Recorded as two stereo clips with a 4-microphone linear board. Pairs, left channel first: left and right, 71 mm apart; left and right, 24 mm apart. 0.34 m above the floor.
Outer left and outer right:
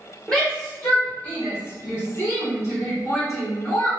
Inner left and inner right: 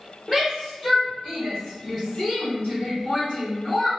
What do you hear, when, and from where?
0.3 s a shout: 5° left (ahead or behind), 1.2 m; by 3.9 s 50° left (ahead or behind), 2.5 m